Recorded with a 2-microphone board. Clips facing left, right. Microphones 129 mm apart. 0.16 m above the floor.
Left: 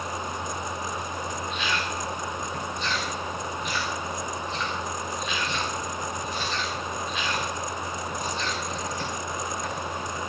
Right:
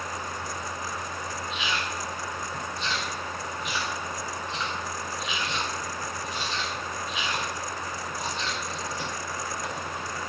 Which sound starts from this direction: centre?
Chewing, at 1.5 s.